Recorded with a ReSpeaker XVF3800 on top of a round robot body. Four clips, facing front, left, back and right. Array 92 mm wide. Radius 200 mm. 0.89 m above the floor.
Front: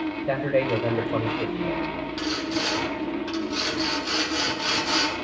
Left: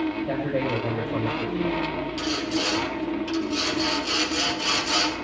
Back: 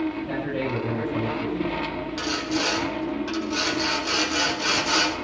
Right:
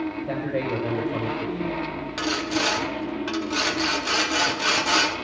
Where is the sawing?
100° right, 2.5 m.